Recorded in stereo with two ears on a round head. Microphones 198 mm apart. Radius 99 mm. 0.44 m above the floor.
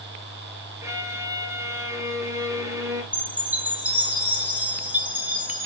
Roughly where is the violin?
Centre.